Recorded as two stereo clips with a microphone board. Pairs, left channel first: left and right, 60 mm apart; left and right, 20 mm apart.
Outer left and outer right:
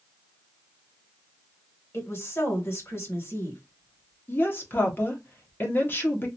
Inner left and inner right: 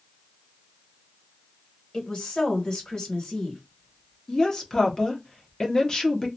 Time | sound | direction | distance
1.9 | a woman speaking | 45° left (ahead or behind) | 1.6 m
4.3 | a woman speaking | 35° left (ahead or behind) | 1.0 m